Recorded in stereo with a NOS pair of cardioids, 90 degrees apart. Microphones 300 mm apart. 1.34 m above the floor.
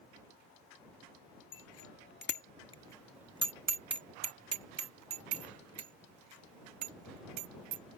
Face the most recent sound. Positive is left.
turn(degrees=-80)